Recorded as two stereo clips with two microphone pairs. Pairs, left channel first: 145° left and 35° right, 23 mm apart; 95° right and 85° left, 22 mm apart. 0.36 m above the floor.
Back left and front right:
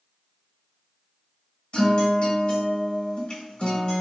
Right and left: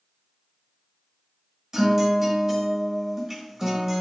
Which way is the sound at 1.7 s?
140° left.